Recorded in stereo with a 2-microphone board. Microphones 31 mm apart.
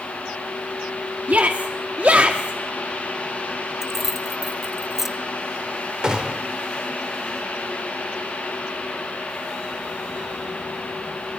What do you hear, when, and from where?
1.3 s a shout: 60° right (ahead or behind), 1.5 m; by 2.6 s 45° right (ahead or behind), 1.6 m
3.8 s keys jangling: 10° right (ahead or behind), 1.1 m
6.0 s a gunshot: 30° right (ahead or behind), 3 m